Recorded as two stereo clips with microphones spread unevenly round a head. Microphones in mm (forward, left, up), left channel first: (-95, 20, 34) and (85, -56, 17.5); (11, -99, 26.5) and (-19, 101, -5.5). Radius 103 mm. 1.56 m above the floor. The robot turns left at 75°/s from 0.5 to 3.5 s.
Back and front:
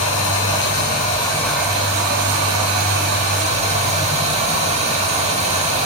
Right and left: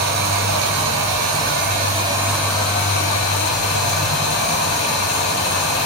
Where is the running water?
145° left, 4 m; by 5.9 s 80° right, 4 m.